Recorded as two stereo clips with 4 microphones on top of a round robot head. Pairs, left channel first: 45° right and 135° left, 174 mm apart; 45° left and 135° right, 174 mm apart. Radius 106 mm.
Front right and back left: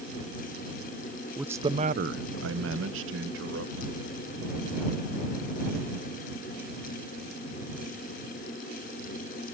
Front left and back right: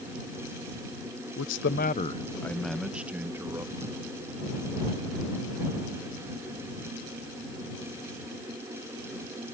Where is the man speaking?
50° left; by 4.0 s 150° left.